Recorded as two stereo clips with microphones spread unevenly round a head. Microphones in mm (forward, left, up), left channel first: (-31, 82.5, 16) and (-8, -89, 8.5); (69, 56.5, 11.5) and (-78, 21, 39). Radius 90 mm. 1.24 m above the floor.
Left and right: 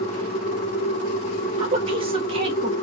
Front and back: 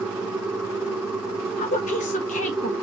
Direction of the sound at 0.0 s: 125° left.